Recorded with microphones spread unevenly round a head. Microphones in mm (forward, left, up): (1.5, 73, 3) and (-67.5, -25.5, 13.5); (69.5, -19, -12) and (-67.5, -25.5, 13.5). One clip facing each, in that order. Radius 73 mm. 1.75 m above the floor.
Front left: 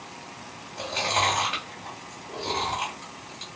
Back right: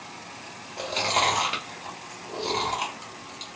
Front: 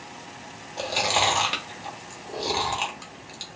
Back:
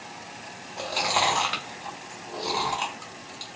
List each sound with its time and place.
0.8 s chewing: 65° right, 1.1 m